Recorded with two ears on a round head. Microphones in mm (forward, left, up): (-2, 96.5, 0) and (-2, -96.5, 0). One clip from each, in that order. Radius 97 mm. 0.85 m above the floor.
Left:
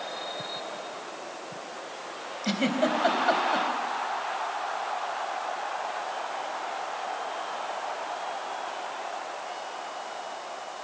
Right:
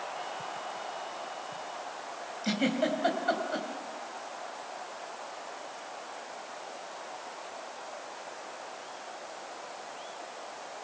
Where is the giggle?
5° left (ahead or behind), 3.5 m.